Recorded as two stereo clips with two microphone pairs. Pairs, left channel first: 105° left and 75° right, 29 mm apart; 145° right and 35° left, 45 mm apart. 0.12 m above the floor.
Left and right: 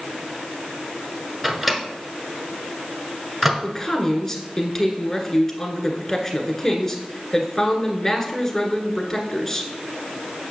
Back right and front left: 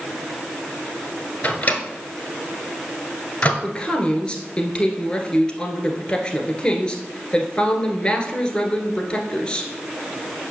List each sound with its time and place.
1.4 s a microwave: 160° right, 1.3 m
3.6 s a man speaking: 165° left, 1.5 m